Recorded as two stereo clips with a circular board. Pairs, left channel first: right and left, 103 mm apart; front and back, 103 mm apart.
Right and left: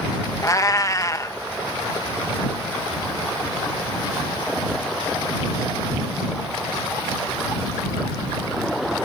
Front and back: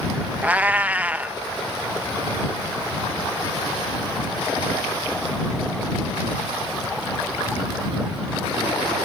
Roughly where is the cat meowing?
Behind right.